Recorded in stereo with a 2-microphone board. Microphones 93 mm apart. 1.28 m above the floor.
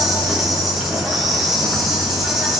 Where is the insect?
Centre (ahead or behind), 7 m.